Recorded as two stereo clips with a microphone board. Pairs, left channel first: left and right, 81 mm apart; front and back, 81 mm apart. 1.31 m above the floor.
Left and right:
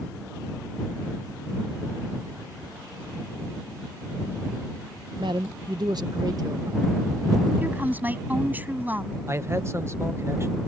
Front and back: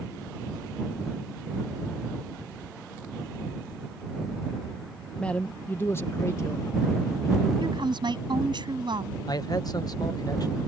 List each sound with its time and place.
5.2 s a man speaking: 80° right; by 7.5 s 45° right
7.6 s a woman speaking: 160° right
9.3 s a man speaking: 35° right